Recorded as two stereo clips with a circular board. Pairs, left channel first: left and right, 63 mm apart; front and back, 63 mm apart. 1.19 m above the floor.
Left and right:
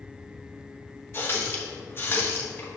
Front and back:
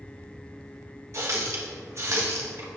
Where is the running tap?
140° left, 1.0 m.